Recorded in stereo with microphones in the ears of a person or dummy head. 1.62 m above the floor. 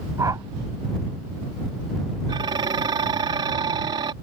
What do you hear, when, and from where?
0.2 s a whoosh: 20° right (ahead or behind)
2.3 s dishes clattering: 25° right (ahead or behind)